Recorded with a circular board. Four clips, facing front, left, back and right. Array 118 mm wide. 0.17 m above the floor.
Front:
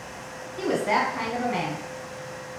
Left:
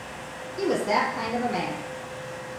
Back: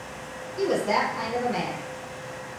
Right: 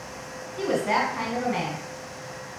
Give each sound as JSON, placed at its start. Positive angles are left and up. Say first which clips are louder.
{"t": 0.6, "sound": "a woman speaking", "louder": "even, even", "azimuth_deg": -40, "distance_m": 1.2}